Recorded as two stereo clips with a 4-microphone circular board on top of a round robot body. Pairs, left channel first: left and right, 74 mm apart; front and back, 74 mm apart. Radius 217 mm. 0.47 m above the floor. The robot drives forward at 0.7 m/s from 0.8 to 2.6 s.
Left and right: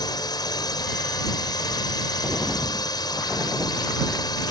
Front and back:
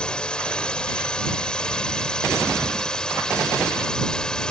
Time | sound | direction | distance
0.0 | a drone | 75° left | ?